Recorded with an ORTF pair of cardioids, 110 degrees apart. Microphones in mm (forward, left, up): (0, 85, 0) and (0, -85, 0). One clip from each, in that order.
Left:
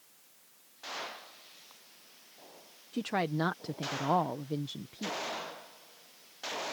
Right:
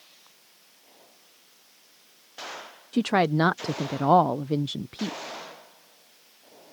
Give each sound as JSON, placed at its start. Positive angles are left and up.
{"t": 2.9, "sound": "a woman speaking", "azimuth_deg": -45}